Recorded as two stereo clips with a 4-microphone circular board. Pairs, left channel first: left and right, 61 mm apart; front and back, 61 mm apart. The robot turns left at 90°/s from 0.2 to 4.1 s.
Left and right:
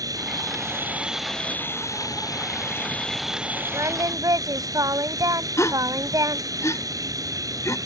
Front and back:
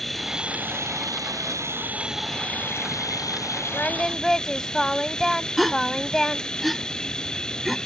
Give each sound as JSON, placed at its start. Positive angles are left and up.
{"t": 0.0, "sound": "an insect", "azimuth_deg": -85}
{"t": 3.7, "sound": "singing", "azimuth_deg": -50}
{"t": 5.6, "sound": "a gasp", "azimuth_deg": 90}